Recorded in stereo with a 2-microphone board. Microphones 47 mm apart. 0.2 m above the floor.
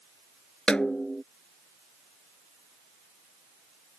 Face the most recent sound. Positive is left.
turn(degrees=20)  # may be behind; listen again after turning